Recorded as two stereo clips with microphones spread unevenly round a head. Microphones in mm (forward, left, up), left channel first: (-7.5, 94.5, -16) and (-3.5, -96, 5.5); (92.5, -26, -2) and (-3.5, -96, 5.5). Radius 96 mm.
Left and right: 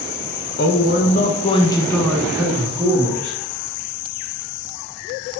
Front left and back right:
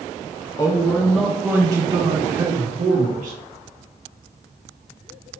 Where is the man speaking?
100° left, 0.8 m; by 3.4 s 155° right, 1.1 m.